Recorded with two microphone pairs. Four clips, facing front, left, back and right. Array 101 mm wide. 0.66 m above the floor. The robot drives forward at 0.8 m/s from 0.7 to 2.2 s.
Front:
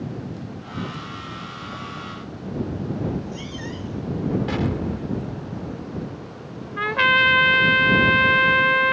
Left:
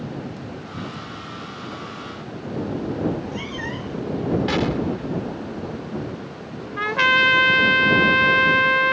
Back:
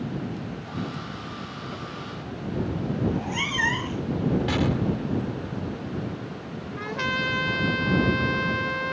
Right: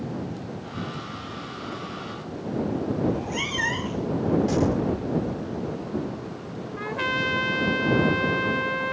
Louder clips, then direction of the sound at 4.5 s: Left 1 dB, even; 90° left.